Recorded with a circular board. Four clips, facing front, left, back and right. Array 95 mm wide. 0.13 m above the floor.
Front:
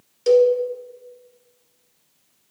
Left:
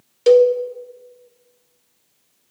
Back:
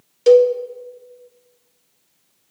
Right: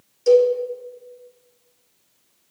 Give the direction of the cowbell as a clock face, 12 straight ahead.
8 o'clock.